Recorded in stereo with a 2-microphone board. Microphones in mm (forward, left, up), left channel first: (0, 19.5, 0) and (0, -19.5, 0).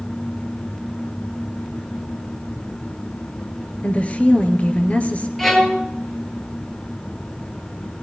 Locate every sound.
3.8 s a woman speaking: 35° left (ahead or behind), 1.6 m
5.4 s a violin: 5° left (ahead or behind), 1.7 m